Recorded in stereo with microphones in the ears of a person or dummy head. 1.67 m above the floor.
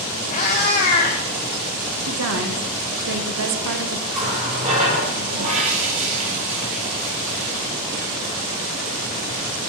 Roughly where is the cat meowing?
Left.